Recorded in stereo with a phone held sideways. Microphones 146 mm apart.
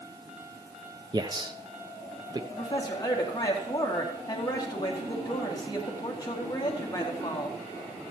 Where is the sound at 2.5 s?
30° left (ahead or behind), 2 m.